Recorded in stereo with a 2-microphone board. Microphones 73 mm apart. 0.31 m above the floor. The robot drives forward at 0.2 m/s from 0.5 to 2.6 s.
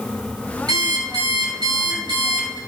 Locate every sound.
0.7 s an alarm clock: 80° right, 2 m